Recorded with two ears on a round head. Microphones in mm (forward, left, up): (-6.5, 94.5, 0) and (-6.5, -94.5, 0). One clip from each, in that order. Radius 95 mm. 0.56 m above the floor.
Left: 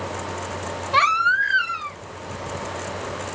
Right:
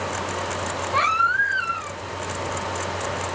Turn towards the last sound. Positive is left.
turn(degrees=55)  # may be behind; listen again after turning